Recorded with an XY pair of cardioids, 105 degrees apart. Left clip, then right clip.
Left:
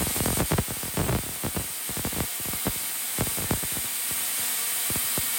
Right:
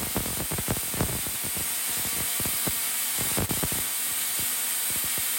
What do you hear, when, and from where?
Only background noise.